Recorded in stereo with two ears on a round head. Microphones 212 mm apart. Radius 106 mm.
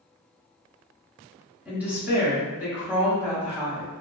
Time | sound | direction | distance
1.6 | a woman speaking | 5° right (ahead or behind) | 1.0 m